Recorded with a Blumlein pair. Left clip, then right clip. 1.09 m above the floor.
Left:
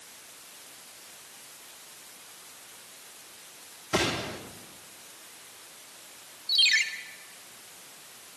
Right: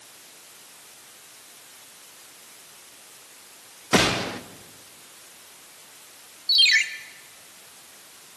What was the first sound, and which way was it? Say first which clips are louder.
A gunshot: right 7 dB; 55° right.